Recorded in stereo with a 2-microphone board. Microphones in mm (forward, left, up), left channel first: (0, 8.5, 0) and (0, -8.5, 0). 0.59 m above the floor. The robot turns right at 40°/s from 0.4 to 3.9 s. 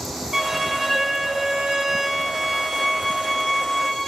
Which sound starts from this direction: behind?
A violin, at 0.3 s.